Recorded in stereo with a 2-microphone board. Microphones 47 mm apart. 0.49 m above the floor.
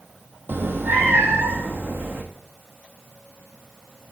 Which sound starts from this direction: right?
A cat meowing, at 0.5 s.